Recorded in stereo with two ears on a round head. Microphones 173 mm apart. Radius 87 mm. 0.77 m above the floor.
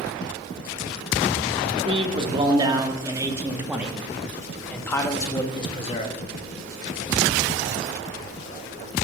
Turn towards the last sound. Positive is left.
turn(degrees=35)  # may be behind; listen again after turning